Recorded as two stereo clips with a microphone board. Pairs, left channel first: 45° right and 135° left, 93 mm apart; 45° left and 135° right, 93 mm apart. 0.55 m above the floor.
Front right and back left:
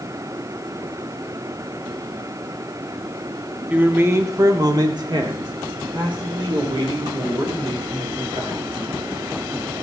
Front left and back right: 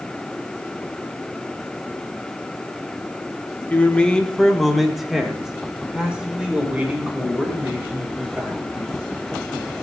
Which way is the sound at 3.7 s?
85° left.